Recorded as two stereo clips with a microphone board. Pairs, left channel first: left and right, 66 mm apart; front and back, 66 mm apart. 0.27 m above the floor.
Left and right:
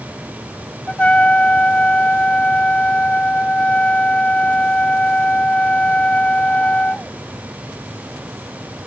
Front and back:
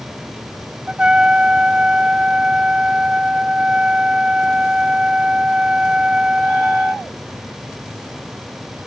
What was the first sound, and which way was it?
A trumpet, 130° left.